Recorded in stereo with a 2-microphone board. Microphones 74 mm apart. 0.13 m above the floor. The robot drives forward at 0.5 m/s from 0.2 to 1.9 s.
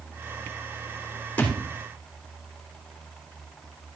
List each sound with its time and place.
1.4 s a thud: 20° left (ahead or behind), 3 m